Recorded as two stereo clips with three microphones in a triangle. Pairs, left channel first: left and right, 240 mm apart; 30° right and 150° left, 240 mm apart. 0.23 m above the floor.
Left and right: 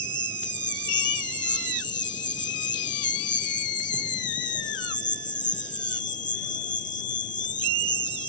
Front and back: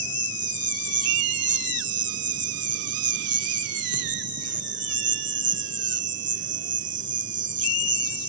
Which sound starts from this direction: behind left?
An insect, at 0.0 s.